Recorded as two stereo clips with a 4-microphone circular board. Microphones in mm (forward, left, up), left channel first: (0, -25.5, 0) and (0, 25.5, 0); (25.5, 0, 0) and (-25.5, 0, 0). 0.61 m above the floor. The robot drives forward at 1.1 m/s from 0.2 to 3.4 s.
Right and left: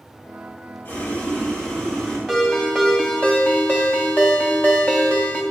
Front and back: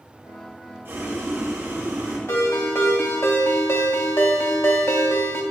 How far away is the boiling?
About 1.6 m.